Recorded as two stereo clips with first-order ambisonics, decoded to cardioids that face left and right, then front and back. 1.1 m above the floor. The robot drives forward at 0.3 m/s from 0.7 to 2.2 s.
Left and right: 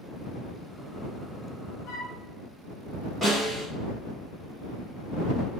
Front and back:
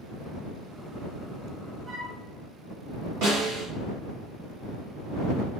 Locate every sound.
1.9 s a flute: 105° left, 0.6 m; by 2.2 s 115° left, 0.7 m
3.2 s a snare drum: straight behind, 1.4 m